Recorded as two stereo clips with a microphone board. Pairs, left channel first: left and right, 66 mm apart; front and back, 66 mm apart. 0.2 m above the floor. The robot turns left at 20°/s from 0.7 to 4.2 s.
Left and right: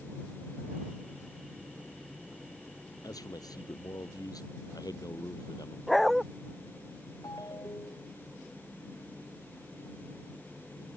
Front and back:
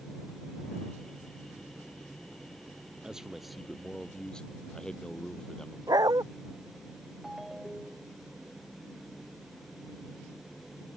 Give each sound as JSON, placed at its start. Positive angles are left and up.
{"t": 3.0, "sound": "a man speaking", "azimuth_deg": 100}
{"t": 5.9, "sound": "a dog barking", "azimuth_deg": 180}
{"t": 7.2, "sound": "a ringtone", "azimuth_deg": 95}